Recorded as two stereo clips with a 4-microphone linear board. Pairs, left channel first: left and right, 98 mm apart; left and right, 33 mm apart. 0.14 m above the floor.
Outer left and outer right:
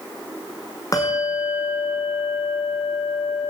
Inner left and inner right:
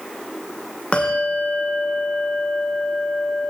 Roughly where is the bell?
Left.